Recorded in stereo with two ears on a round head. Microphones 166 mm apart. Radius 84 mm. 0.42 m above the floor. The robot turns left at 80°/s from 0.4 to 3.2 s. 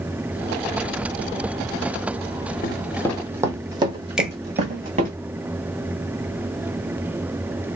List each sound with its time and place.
2.6 s running footsteps: 50° left (ahead or behind), 0.6 m; by 5.2 s 45° right (ahead or behind), 1.5 m
4.2 s a finger snap: 5° right (ahead or behind), 0.5 m